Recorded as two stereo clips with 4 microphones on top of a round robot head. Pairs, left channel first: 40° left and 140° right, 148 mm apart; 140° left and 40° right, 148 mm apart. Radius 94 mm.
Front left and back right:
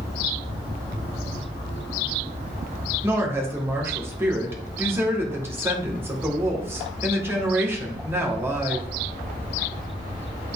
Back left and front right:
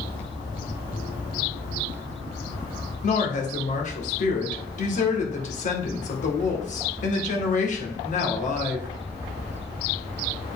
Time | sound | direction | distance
3.0 | a woman speaking | 150° left | 1.9 m